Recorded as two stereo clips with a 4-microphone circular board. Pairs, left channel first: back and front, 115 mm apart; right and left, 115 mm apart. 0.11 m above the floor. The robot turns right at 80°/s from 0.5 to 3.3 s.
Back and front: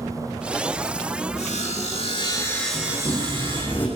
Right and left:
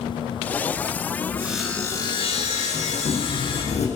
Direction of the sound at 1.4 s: 160° left.